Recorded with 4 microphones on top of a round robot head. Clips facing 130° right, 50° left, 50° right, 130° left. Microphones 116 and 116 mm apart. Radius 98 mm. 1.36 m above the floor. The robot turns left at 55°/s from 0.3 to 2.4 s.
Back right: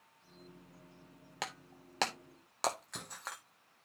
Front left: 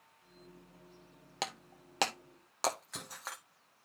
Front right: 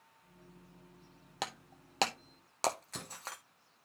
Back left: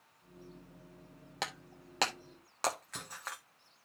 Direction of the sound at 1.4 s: 20° left.